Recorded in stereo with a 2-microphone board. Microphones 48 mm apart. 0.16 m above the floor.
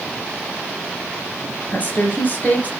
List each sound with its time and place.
1.7 s a woman speaking: 35° left (ahead or behind), 2 m